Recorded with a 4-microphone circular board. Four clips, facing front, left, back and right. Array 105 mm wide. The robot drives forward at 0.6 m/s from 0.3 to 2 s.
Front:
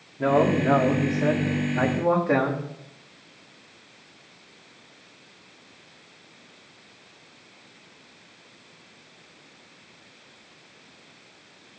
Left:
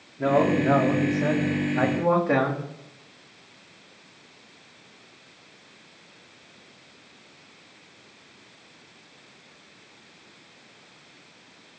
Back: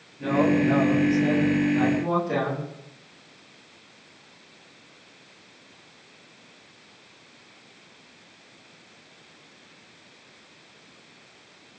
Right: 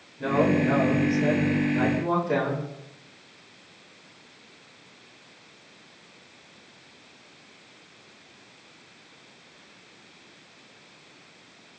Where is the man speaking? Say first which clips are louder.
Left 1 dB, front 1 dB; 35° left, 4 m; by 2.6 s 45° left, 3.5 m.